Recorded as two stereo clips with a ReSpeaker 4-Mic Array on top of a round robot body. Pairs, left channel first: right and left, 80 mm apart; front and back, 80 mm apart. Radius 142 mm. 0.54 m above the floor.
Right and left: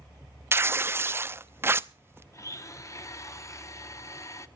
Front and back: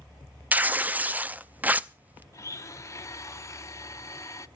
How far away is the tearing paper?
About 0.8 m.